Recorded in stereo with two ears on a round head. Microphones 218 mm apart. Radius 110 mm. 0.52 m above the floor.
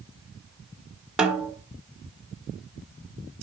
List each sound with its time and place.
1.2 s a snare drum: 5° right (ahead or behind), 1.4 m